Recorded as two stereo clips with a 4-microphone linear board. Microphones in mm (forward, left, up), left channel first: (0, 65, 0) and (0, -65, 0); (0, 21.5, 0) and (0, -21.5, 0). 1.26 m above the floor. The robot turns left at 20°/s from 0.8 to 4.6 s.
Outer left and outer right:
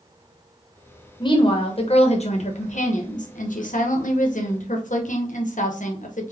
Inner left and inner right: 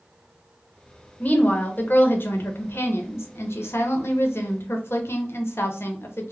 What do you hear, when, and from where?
1.2 s a woman speaking: 145° left, 0.7 m; by 6.3 s 75° left, 0.7 m